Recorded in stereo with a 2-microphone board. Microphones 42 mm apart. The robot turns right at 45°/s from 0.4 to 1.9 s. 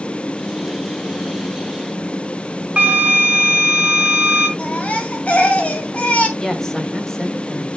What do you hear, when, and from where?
2.8 s a flute: 25° right (ahead or behind), 1.8 m
4.6 s a baby crying: 35° left (ahead or behind), 2 m
6.4 s a woman speaking: 15° left (ahead or behind), 2.5 m